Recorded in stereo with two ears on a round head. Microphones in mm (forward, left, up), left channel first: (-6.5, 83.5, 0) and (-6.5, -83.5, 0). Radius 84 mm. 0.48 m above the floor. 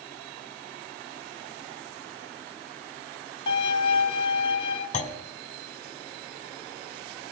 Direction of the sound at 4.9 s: 40° left (ahead or behind).